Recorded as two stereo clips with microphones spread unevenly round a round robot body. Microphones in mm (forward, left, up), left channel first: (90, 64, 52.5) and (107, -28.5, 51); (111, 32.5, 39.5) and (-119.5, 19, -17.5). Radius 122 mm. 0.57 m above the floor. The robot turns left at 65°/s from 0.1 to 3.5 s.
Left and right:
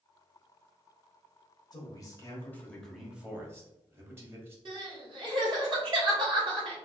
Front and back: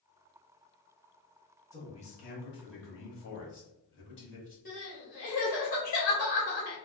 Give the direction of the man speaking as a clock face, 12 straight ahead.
9 o'clock.